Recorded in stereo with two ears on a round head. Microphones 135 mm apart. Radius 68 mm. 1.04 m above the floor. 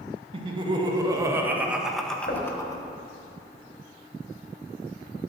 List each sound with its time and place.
0.3 s laughter: 40° right (ahead or behind), 1.8 m; by 2.8 s 25° left (ahead or behind), 1.3 m
2.3 s knocking: 65° left (ahead or behind), 3 m